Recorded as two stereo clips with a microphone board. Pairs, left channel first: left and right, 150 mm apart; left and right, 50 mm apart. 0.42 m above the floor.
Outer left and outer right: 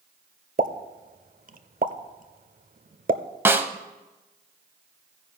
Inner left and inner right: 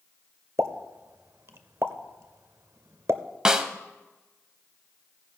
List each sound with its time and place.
0.6 s a pop: 60° right (ahead or behind), 0.6 m
3.5 s a snare drum: 15° right (ahead or behind), 0.7 m